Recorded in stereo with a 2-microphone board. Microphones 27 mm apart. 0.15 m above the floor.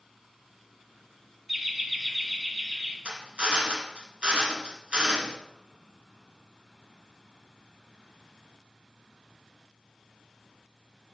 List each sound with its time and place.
1.5 s laughter: 5° right (ahead or behind), 1.3 m
3.0 s a drill: 40° right (ahead or behind), 1.3 m